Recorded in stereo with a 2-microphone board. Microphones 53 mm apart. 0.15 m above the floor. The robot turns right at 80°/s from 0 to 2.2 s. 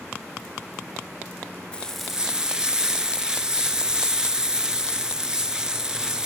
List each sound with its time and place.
1.7 s frying: 155° left, 0.9 m; by 6.3 s 170° right, 0.9 m